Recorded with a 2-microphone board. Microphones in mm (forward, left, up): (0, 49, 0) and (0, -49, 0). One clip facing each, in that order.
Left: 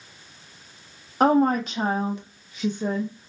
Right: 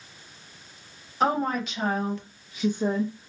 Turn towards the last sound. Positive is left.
turn(degrees=-30)  # may be behind; listen again after turning